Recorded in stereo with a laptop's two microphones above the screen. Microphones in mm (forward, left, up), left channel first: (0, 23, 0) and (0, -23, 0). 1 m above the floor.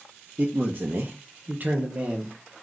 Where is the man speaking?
40° right (ahead or behind), 0.6 m; by 2.6 s 20° right (ahead or behind), 0.9 m.